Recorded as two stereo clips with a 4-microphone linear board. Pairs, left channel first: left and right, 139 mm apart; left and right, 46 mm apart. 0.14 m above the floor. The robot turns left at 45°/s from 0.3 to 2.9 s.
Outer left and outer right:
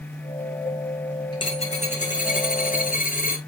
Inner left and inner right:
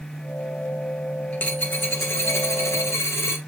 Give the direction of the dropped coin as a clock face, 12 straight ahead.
7 o'clock.